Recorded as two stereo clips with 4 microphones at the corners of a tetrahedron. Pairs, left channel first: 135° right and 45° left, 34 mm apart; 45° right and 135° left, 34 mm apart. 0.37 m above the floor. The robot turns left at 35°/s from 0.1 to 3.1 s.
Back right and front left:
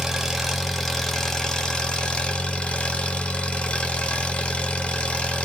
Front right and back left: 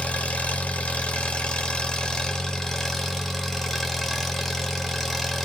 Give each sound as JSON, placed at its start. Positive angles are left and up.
{"t": 0.0, "sound": "an engine running", "azimuth_deg": -25, "distance_m": 1.2}